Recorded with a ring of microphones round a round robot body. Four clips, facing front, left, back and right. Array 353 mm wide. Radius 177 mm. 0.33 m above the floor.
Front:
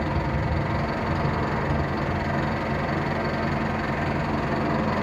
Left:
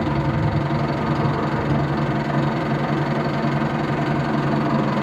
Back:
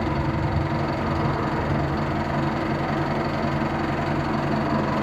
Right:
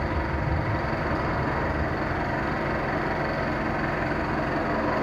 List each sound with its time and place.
0.0 s an engine running: 95° left, 6 m